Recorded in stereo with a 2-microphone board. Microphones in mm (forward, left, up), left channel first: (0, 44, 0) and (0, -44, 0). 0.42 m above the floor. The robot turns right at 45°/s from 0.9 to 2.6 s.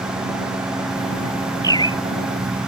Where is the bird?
45° left (ahead or behind); by 2.0 s 60° left (ahead or behind).